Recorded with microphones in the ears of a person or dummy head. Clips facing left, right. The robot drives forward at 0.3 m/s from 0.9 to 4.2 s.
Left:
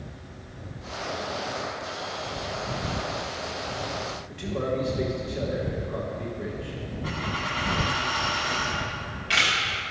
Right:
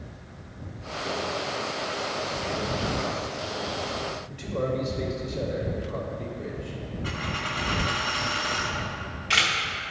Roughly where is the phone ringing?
I don't hear a phone ringing.